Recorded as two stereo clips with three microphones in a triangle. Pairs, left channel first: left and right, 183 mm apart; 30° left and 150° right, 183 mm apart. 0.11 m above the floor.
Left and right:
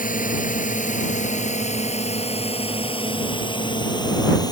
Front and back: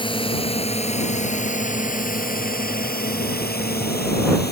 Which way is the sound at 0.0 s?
80° left.